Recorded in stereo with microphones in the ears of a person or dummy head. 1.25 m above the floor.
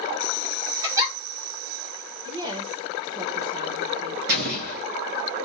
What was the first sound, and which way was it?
A giggle, 20° right (ahead or behind).